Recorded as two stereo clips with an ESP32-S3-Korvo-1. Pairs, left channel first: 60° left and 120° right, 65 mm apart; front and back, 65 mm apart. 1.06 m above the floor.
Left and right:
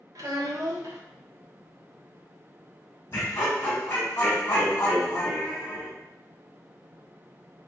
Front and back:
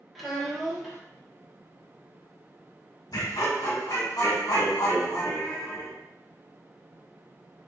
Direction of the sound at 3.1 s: 10° left.